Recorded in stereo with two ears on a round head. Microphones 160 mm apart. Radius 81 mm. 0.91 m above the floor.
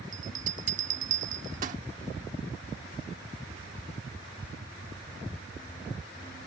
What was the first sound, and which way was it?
A bell, 45° right (ahead or behind).